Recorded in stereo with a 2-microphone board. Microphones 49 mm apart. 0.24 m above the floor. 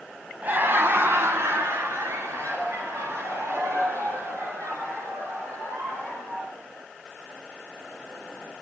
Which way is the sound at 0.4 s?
35° right (ahead or behind).